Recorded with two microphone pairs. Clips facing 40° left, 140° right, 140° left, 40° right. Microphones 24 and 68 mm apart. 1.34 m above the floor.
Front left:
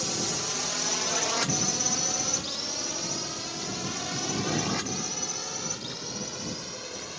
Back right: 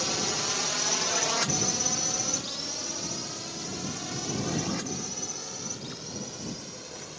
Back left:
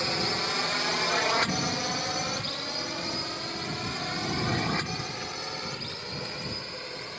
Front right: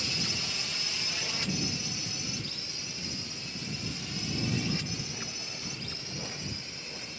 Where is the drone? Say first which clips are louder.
Back right 1 dB, back left 8 dB; 150° left; by 7.2 s 100° left.